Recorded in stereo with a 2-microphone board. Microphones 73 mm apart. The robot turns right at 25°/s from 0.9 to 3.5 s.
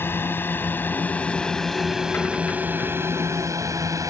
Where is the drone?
30° left (ahead or behind); by 4.1 s 50° right (ahead or behind).